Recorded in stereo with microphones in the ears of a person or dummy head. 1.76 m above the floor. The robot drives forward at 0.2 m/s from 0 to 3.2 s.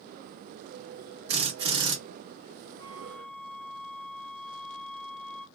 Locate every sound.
1.3 s a drill: 30° right (ahead or behind), 1.2 m
2.8 s a flute: 20° left (ahead or behind), 1.2 m; by 5.5 s 15° left (ahead or behind), 1.2 m